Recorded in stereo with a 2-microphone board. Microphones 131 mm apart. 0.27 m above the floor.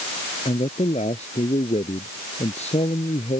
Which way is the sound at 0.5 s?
50° left (ahead or behind).